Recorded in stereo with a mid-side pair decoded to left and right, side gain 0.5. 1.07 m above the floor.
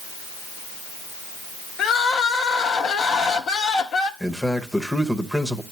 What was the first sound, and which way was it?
Crying, 60° left.